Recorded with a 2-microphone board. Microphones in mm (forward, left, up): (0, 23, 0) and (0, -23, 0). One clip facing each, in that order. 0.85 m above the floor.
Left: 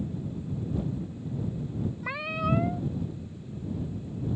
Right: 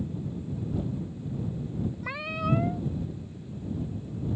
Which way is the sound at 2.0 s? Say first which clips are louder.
Left 2 dB; 5° left (ahead or behind).